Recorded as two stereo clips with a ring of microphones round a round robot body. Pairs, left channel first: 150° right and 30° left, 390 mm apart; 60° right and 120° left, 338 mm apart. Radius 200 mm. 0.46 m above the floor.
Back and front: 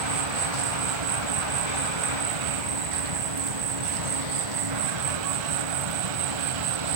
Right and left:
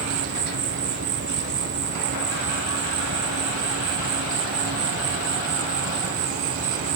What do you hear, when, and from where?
0.0 s an insect: 65° left